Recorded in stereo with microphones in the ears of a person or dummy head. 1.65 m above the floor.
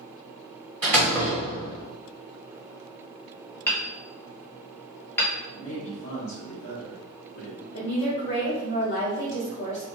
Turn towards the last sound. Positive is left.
turn(degrees=65)  # may be behind; listen again after turning